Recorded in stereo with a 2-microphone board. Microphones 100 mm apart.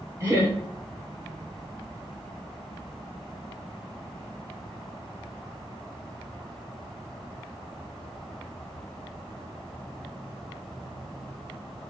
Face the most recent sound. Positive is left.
turn(degrees=-30)  # may be behind; listen again after turning